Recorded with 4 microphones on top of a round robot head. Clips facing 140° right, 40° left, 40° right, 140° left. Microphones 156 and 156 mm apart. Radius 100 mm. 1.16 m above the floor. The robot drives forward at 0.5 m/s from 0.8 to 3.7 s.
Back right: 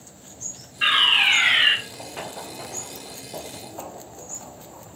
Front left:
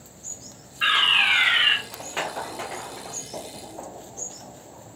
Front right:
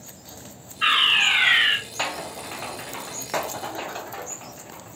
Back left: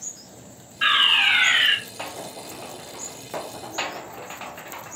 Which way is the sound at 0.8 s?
155° left.